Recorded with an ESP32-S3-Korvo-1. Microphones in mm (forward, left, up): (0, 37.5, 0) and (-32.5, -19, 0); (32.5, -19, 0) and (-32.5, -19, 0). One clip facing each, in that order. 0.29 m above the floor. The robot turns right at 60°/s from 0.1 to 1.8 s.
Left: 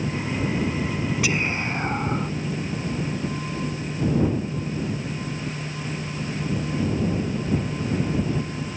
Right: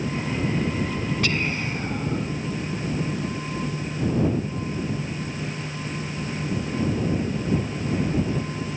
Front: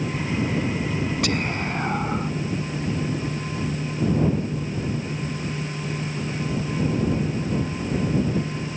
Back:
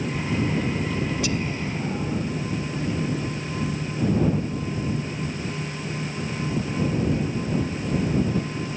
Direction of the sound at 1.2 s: 20° right.